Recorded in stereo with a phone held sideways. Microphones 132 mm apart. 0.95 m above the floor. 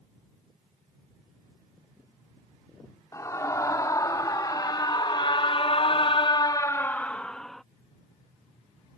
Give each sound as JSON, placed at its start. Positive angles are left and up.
{"t": 3.1, "sound": "a scream", "side_deg": 25}